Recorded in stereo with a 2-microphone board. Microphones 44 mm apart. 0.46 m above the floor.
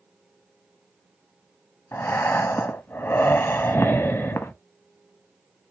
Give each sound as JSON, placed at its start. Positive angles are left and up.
{"t": 1.9, "sound": "breathing", "side_deg": 65, "distance_m": 0.5}